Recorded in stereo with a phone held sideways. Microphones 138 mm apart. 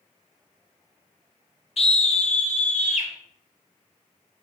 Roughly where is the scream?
Left.